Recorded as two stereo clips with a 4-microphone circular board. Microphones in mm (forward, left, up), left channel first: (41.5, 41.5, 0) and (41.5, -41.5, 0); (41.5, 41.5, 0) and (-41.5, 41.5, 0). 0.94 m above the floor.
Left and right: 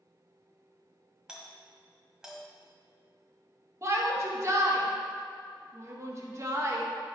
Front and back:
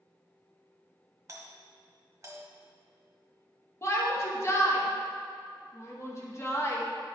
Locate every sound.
1.3 s a doorbell: 170° right, 1.3 m
3.8 s a shout: 45° right, 1.2 m